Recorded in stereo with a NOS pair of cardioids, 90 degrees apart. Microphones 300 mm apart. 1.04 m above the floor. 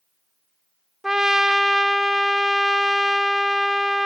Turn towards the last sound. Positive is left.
turn(degrees=0)